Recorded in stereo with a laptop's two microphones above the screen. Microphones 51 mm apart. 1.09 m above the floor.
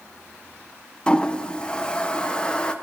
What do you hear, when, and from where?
1.1 s a toilet flushing: 20° left (ahead or behind), 0.7 m